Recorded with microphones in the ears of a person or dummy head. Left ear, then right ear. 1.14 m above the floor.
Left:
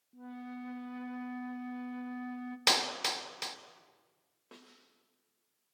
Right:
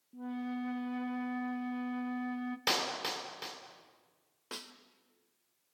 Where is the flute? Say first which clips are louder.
Right 6 dB; 5° right (ahead or behind), 0.7 m.